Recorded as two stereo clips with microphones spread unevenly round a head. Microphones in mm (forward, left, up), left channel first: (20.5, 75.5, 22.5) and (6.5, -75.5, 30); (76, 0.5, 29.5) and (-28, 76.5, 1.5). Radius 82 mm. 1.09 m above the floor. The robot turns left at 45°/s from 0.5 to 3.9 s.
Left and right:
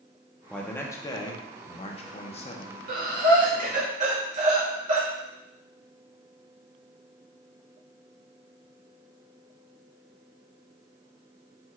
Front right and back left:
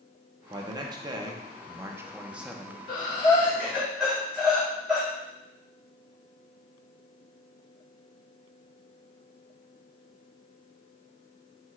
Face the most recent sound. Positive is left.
turn(degrees=-135)